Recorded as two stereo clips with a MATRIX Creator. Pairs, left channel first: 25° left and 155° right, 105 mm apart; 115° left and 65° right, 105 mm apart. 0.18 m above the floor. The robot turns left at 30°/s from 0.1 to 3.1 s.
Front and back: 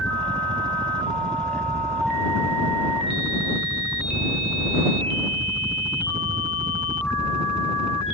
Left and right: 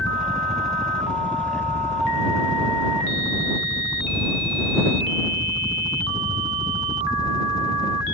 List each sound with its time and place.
0.0 s a helicopter: 145° right; by 8.2 s 125° left